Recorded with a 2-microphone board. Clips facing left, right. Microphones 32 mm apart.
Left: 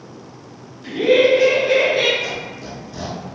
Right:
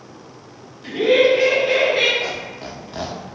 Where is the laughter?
5° right (ahead or behind), 0.9 m; by 2.1 s 15° right (ahead or behind), 1.3 m.